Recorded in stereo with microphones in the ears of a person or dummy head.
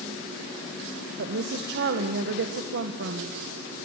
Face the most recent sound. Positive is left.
turn(degrees=-60)  # may be behind; listen again after turning